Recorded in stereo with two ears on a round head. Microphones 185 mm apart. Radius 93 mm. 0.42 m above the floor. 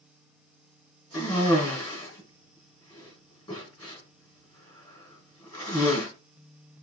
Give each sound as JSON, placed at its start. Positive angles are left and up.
{"t": 1.1, "sound": "a cough", "side_deg": 25, "distance_m": 4.0}